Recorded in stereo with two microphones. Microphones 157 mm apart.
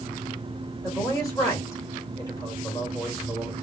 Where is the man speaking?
20° left (ahead or behind), 2.0 m.